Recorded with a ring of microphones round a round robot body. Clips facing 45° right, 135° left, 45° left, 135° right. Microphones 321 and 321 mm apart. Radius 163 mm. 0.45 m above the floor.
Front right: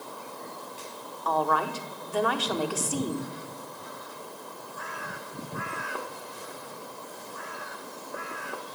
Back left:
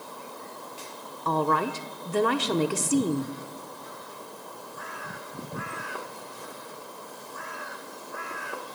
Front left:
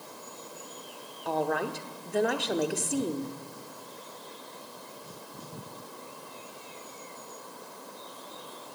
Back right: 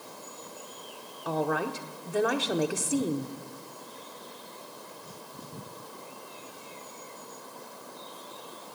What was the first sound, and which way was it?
A woman speaking, 140° left.